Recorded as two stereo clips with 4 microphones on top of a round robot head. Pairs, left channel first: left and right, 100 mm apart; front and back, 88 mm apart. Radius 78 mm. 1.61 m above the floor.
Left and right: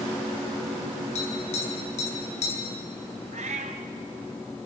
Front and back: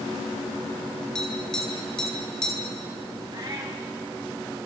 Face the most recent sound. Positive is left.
turn(degrees=-110)